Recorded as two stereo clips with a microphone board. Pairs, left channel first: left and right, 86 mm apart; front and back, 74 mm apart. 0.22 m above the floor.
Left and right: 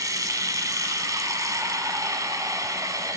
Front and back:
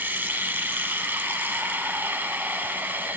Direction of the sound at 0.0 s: 125° right.